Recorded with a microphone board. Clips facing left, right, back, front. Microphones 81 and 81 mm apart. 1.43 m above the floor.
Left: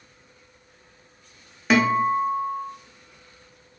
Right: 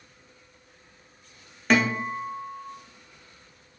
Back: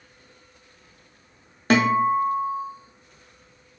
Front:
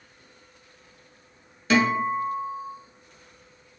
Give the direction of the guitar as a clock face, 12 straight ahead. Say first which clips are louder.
Left 4 dB, back 3 dB; 6 o'clock.